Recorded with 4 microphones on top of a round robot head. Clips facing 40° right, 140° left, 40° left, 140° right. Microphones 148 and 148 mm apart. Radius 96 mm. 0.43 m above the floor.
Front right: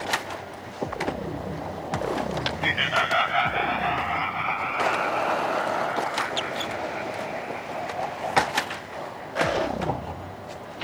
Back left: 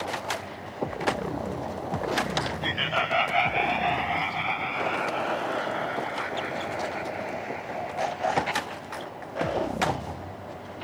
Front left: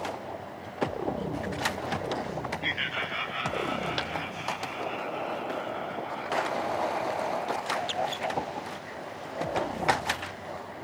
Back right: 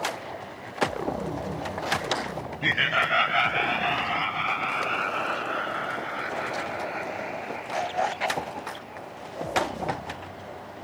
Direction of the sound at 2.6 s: 120° right.